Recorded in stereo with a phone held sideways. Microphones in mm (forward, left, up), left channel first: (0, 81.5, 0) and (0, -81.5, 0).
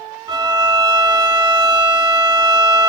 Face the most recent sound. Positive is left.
turn(degrees=-25)  # may be behind; listen again after turning